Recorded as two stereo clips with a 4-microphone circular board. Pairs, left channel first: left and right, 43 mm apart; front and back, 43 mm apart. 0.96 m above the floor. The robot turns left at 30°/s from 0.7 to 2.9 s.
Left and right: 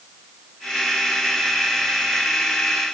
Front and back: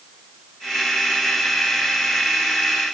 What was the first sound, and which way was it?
Only background noise.